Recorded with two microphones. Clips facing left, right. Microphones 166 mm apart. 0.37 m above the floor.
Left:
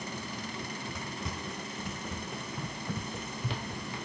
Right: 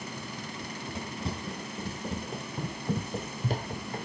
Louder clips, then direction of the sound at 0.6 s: Right 2 dB; 25° right (ahead or behind).